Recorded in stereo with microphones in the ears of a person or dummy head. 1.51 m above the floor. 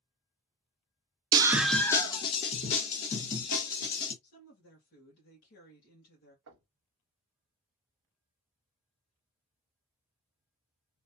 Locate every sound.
1.3 s a scream: 25° right (ahead or behind), 0.6 m; by 4.1 s 50° left (ahead or behind), 2 m
4.2 s a woman speaking: 60° left (ahead or behind), 1.7 m
6.5 s knocking: 70° right (ahead or behind), 1.0 m